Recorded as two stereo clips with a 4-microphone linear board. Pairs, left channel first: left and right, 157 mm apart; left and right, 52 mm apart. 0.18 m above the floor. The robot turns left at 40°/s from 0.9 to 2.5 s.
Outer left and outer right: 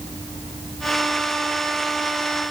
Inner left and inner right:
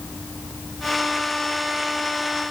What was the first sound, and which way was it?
Only background noise.